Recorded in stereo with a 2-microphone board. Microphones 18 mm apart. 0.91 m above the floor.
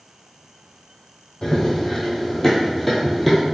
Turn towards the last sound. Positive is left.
turn(degrees=0)  # may be behind; listen again after turning